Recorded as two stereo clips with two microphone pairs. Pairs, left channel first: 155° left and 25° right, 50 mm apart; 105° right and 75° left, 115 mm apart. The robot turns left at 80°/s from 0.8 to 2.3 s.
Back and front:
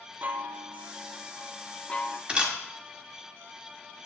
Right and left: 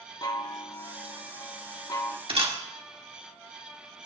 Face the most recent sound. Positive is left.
turn(degrees=45)